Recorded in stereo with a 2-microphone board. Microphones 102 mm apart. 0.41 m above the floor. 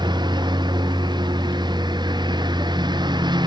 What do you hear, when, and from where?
0.0 s a lawn mower: 50° right (ahead or behind)